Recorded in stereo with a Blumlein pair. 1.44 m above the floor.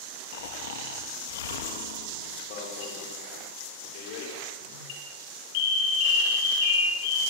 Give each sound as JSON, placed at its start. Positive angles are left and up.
{"t": 0.3, "sound": "snoring", "azimuth_deg": 60, "distance_m": 2.5}
{"t": 2.5, "sound": "an alarm", "azimuth_deg": 45, "distance_m": 7.0}